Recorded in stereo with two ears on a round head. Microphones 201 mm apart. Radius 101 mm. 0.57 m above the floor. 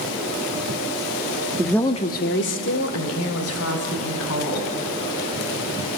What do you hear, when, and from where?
1.6 s a woman speaking: 10° right (ahead or behind), 0.8 m; by 4.7 s 70° left (ahead or behind), 4 m